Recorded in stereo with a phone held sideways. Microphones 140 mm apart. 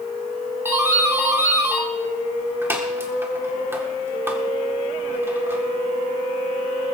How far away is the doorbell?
About 1.9 m.